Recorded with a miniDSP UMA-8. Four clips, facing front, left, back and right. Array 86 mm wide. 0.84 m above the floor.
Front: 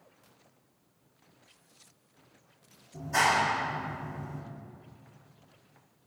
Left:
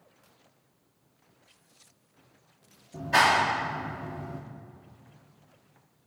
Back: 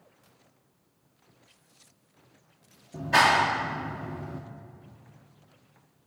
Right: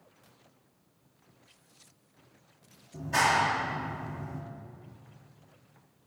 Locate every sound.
2.9 s a clap: 155° left, 1.5 m